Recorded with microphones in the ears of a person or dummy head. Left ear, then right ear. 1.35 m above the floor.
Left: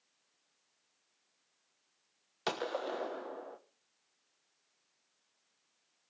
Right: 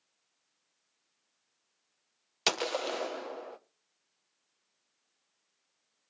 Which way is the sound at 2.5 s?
75° right (ahead or behind).